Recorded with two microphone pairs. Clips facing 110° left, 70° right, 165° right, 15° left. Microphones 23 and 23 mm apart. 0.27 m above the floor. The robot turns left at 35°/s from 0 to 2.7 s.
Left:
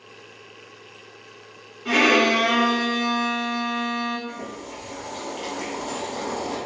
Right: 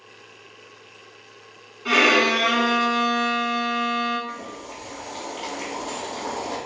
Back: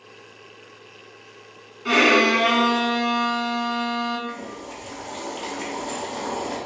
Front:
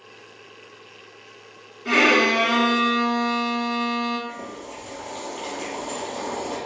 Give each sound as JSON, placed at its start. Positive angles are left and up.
{"t": 1.9, "sound": "a violin", "azimuth_deg": -120, "distance_m": 1.2}
{"t": 4.3, "sound": "boiling", "azimuth_deg": -155, "distance_m": 1.8}